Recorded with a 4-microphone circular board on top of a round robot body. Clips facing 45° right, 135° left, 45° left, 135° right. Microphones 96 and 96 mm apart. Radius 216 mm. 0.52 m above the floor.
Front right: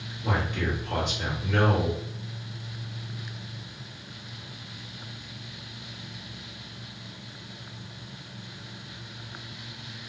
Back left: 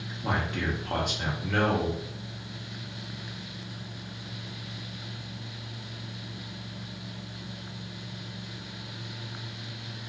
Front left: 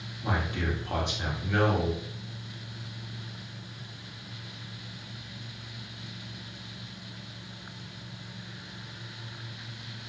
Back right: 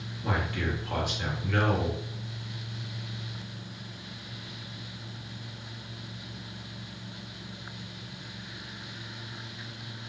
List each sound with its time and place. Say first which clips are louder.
0.2 s a man speaking: front right 1 dB, even; 110° left, 1.3 m